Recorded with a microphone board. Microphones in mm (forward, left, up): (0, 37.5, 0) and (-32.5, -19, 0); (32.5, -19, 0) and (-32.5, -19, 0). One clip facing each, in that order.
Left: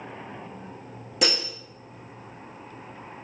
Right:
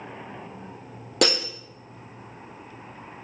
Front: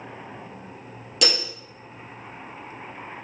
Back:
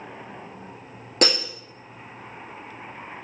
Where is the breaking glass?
135° right, 2 m.